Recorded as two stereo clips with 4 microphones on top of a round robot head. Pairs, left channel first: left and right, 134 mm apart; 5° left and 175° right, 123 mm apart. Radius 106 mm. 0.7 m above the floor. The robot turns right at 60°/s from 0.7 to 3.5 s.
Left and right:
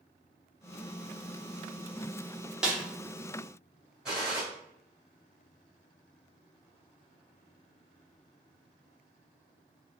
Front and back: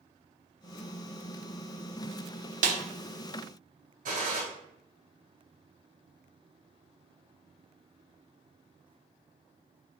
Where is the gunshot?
175° right, 1.6 m.